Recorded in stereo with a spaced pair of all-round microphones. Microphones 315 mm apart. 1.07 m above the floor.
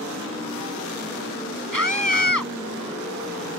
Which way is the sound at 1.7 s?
85° right.